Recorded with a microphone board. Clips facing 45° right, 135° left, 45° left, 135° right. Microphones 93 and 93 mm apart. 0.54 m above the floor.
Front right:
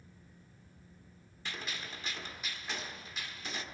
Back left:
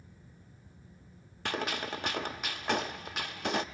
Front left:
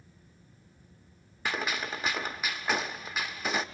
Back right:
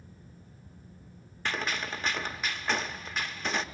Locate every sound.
1.4 s a gunshot: 125° left, 0.7 m